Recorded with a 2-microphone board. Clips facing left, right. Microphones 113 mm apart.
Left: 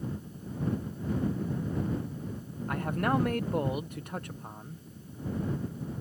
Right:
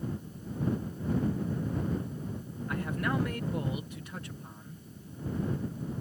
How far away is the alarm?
I don't hear an alarm.